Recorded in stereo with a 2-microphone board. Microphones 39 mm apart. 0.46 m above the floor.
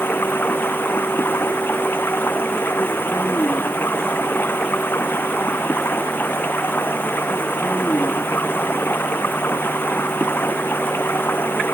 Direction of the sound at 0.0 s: 65° left (ahead or behind).